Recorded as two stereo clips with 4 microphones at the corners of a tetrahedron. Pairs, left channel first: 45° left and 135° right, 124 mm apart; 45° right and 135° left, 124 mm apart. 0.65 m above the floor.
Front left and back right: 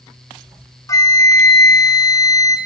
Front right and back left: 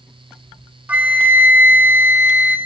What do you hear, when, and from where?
0.9 s a flute: 75° left, 1.0 m